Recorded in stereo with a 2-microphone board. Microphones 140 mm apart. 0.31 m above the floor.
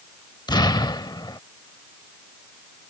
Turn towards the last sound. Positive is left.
turn(degrees=30)  # may be behind; listen again after turning